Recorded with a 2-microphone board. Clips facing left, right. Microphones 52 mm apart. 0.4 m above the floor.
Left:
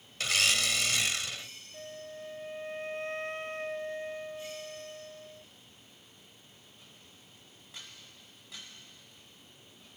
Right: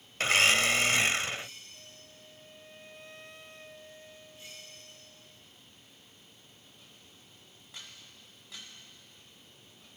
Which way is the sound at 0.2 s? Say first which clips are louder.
Right 5 dB; 35° right (ahead or behind).